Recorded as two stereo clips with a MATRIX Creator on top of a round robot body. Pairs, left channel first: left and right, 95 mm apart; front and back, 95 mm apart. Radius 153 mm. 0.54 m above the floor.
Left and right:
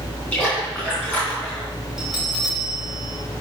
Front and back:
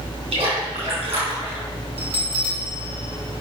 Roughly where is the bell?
Behind.